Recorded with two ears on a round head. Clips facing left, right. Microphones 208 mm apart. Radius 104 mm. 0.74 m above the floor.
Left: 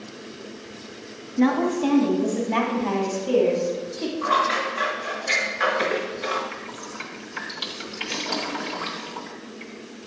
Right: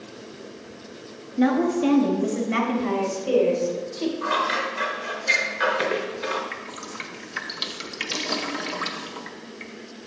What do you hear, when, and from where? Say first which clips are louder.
1.4 s a woman speaking: even; 10° right (ahead or behind), 0.9 m; by 4.1 s 45° right (ahead or behind), 2 m
4.2 s scissors: left 1 dB; 15° right (ahead or behind), 0.8 m
6.5 s dripping: left 1 dB; 25° right (ahead or behind), 0.6 m